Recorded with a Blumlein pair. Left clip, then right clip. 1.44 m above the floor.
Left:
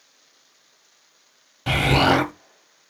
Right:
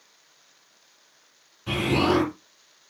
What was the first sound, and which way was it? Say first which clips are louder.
An explosion: left 5 dB; 45° left.